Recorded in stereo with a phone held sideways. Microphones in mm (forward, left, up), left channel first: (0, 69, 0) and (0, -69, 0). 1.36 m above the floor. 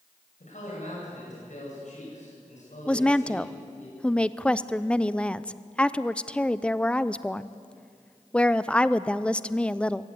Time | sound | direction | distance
0.4 | a man speaking | 65° left (ahead or behind) | 8.5 m
2.9 | a woman speaking | 5° left (ahead or behind) | 0.6 m